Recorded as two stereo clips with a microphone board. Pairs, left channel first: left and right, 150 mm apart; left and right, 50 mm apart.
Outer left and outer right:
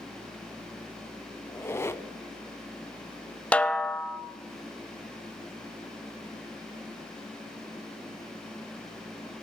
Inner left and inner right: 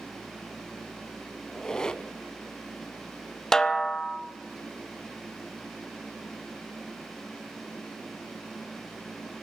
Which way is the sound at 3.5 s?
10° left (ahead or behind).